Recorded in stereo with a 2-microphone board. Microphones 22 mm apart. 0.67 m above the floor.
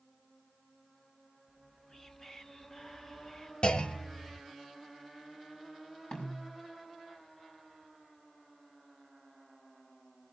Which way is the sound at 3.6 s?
55° left (ahead or behind).